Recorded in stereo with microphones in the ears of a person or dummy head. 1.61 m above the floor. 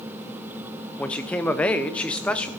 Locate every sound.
1.0 s a man speaking: centre (ahead or behind), 0.6 m